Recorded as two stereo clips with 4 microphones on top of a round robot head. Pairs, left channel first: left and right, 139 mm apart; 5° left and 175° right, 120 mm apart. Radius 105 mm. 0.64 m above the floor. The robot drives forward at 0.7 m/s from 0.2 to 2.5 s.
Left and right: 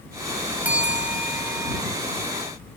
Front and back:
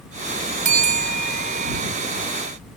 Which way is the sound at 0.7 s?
170° right.